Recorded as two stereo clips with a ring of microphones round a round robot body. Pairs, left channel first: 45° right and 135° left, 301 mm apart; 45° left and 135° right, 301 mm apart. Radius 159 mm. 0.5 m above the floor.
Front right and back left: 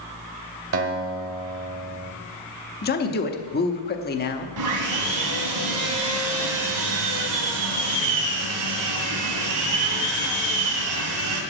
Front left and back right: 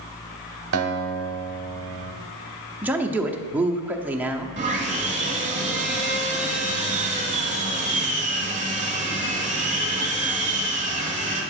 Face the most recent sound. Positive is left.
turn(degrees=160)